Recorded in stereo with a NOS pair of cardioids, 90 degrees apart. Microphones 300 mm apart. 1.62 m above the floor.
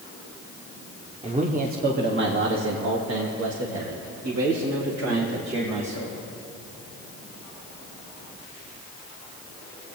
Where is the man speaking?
20° right, 1.2 m; by 6.2 s 75° right, 3 m.